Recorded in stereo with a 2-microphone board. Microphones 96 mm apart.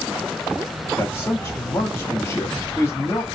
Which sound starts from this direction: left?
A man speaking, at 1.0 s.